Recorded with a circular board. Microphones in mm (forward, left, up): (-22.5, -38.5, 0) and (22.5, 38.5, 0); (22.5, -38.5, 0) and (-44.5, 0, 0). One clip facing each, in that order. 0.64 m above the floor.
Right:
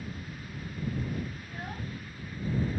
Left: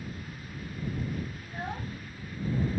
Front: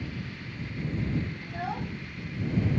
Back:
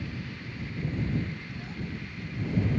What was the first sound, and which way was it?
A child speaking, 5° right.